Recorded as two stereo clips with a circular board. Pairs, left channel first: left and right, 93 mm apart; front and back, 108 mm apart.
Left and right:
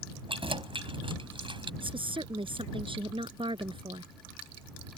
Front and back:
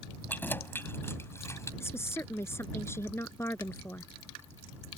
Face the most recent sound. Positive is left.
turn(degrees=-65)